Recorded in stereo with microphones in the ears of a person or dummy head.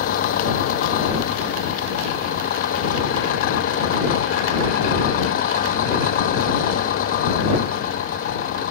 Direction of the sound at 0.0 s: 55° left (ahead or behind).